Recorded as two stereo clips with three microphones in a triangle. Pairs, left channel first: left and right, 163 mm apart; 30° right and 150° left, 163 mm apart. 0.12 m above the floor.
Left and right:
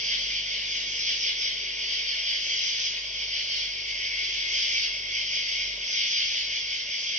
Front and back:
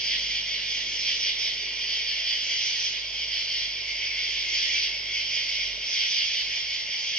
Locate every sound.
0.0 s an insect: 115° right, 1.2 m